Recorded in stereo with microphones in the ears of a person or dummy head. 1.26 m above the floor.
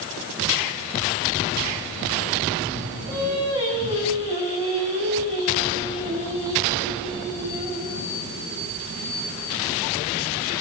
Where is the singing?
25° right (ahead or behind), 5.5 m.